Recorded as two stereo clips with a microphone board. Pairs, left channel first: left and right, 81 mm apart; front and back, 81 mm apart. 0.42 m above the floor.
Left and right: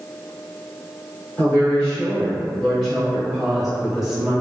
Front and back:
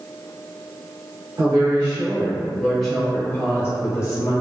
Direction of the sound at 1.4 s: 165° left.